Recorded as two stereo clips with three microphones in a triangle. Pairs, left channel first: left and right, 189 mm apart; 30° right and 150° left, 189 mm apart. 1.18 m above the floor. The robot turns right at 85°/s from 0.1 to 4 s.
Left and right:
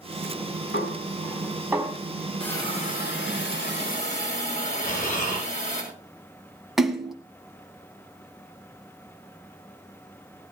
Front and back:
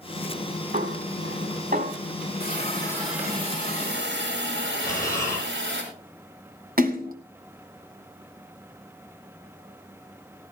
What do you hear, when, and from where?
0.7 s a snare drum: 110° left, 4 m; by 1.9 s 145° right, 4 m
2.4 s a hiss: 5° left, 5.5 m; by 5.8 s 140° left, 5.5 m
4.8 s breathing: 45° left, 7.5 m
6.8 s a splash: straight behind, 1.9 m